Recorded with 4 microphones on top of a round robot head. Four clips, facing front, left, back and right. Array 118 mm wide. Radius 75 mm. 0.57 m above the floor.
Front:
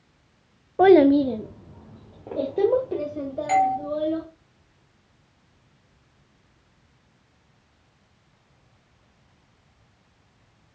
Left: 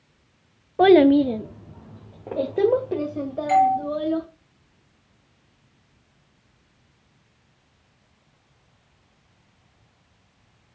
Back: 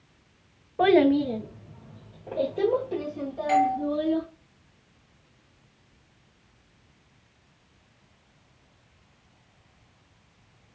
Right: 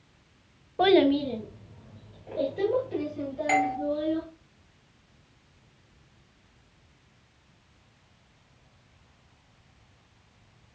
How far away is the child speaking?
About 0.6 m.